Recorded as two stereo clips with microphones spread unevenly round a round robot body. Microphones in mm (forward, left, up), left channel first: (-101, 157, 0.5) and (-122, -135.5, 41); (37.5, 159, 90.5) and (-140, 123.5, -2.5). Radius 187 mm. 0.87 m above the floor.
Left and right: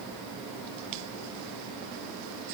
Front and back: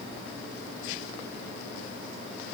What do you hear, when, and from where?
Only background noise.